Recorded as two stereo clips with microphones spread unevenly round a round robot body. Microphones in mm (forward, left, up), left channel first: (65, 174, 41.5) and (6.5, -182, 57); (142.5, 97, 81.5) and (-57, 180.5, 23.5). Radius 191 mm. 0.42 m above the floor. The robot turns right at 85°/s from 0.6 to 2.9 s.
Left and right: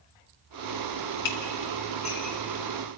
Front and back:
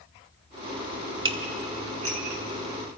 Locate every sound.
1.2 s dishes clattering: 85° left, 3 m; by 2.4 s 175° right, 3 m